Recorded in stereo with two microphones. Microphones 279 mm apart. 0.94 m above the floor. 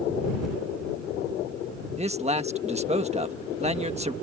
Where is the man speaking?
25° right (ahead or behind).